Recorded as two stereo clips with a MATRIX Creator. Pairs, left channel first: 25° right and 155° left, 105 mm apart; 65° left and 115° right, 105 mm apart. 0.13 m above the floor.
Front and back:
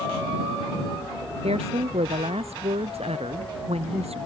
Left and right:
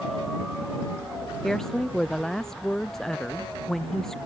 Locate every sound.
1.4 s a woman speaking: 155° left